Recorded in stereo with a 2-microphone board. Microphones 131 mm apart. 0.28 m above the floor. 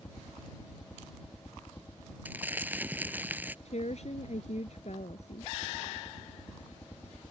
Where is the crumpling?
15° right (ahead or behind).